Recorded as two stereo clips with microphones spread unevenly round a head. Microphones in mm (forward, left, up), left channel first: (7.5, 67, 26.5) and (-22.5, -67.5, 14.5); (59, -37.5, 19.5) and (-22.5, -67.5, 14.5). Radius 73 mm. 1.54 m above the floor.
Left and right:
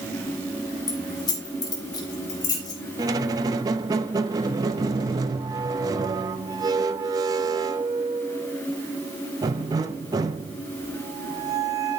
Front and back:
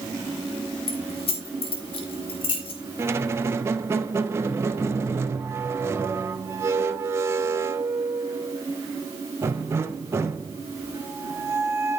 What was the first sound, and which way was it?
Keys jangling, 15° left.